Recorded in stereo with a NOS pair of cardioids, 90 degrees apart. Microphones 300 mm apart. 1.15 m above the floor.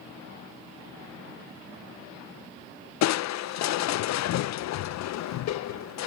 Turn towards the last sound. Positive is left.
turn(degrees=65)